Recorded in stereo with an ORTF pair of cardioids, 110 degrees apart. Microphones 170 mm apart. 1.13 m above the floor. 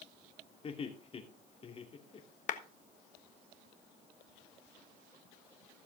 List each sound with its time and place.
0.6 s laughter: 35° left, 3 m
2.5 s a clap: 50° left, 1.3 m